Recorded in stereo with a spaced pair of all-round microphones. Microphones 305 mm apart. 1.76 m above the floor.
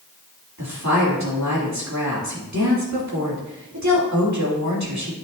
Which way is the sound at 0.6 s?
60° right (ahead or behind).